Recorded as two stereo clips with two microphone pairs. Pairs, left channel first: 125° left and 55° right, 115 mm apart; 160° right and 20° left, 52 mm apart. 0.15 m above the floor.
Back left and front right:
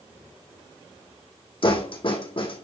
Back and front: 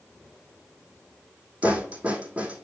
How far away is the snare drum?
About 2.5 m.